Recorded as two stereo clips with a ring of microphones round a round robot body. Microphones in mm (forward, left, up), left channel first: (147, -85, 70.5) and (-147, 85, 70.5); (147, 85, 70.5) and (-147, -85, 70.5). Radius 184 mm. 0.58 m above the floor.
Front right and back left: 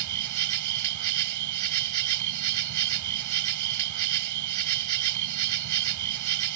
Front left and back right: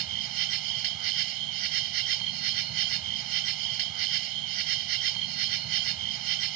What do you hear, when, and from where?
0.0 s an insect: 175° right